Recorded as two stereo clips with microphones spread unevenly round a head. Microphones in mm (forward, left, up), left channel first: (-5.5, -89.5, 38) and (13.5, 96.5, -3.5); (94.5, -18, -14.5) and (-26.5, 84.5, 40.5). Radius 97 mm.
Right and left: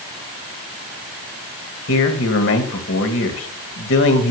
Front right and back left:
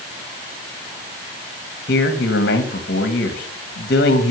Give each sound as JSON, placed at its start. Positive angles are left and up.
{"t": 1.9, "sound": "a man speaking", "azimuth_deg": -90, "distance_m": 1.6}